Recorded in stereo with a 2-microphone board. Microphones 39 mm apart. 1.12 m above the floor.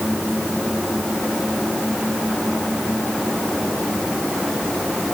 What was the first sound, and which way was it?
Only background noise.